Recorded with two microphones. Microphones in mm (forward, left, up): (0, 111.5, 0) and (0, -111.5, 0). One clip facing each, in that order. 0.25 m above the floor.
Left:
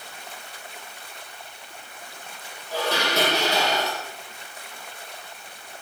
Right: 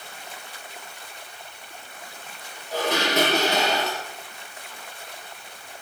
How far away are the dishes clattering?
About 4.5 m.